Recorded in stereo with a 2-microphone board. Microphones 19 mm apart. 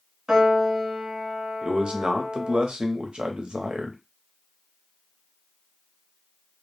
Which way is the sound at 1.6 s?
55° right (ahead or behind).